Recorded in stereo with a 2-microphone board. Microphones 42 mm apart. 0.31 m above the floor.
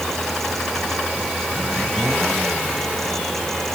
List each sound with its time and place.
Only background noise.